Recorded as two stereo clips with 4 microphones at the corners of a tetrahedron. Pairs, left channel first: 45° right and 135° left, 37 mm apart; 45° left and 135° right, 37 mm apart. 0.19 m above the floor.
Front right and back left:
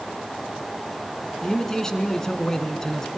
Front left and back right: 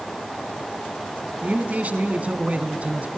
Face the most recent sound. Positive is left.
turn(degrees=-115)